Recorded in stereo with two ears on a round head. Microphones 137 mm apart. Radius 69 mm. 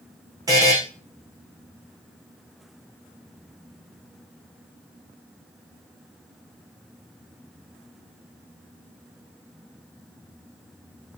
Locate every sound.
0.5 s a buzzer: 25° right (ahead or behind), 6 m